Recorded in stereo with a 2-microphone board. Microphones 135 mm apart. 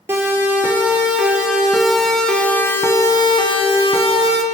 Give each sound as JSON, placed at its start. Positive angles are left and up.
{"t": 0.1, "sound": "a siren", "side_deg": -15, "distance_m": 4.0}